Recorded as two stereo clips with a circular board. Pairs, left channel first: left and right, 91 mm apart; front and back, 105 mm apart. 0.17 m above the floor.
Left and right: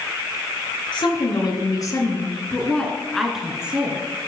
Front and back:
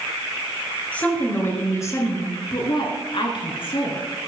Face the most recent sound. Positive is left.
turn(degrees=-20)